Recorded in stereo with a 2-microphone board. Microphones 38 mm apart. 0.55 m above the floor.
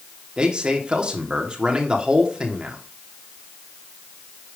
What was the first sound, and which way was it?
A man speaking, 30° right (ahead or behind).